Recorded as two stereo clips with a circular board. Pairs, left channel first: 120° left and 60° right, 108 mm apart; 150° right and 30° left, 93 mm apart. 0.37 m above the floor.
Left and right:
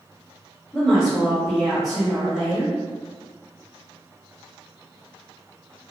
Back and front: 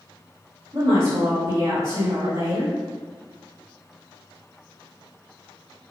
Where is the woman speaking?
30° left, 1.6 m.